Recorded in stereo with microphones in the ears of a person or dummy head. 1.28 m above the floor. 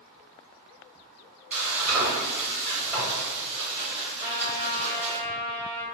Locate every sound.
1.5 s frying: 10° right (ahead or behind), 0.7 m
4.2 s a trumpet: 5° left (ahead or behind), 1.4 m